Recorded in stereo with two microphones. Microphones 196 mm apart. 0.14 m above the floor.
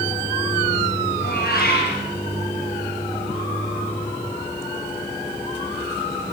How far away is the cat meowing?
About 9 m.